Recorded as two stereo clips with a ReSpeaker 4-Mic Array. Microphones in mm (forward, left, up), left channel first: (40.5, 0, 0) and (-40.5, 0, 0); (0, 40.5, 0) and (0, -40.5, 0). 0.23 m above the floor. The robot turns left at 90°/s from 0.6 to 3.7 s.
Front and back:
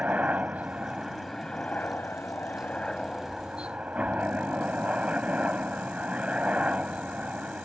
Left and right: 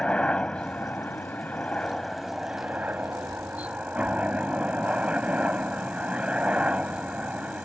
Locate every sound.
0.0 s a helicopter: 145° left; by 7.7 s 135° right